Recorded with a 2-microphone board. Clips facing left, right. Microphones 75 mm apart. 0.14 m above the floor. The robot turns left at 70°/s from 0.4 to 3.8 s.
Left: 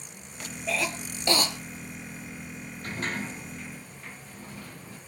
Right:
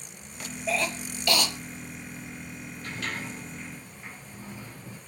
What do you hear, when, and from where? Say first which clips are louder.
0.7 s a cough: right 1 dB; 5° right (ahead or behind), 3 m; by 1.5 s 45° left (ahead or behind), 3 m
2.8 s a sliding door: left 2 dB; 50° left, 4.5 m; by 5.0 s 20° right, 4.5 m